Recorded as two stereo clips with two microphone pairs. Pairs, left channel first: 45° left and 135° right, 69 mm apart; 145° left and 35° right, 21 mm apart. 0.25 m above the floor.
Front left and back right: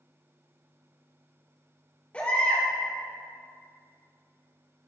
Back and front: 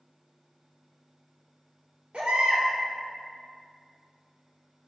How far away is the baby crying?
About 3 m.